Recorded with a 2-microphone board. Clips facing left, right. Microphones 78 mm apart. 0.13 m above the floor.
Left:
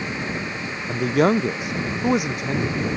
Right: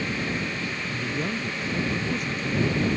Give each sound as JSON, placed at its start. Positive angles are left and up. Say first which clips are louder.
{"t": 0.9, "sound": "a man speaking", "louder": "left 14 dB", "side_deg": 80}